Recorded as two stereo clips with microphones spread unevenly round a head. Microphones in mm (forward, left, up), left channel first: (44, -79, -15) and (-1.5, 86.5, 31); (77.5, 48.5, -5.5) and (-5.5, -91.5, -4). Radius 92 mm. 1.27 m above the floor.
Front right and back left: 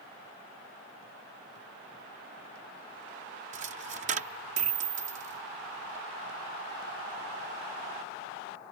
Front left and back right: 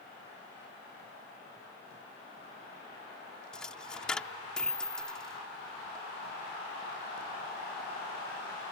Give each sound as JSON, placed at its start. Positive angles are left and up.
{"t": 3.5, "sound": "a dropped coin", "azimuth_deg": 145}